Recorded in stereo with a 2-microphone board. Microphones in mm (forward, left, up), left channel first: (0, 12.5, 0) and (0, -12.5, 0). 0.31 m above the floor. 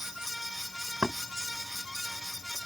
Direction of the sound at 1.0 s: 55° right (ahead or behind).